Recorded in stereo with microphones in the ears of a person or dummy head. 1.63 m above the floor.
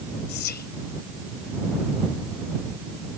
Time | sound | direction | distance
0.3 | whispering | 50° left (ahead or behind) | ?